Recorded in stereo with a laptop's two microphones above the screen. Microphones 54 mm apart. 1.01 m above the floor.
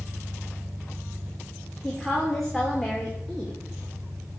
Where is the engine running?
45° right (ahead or behind), 3.5 m.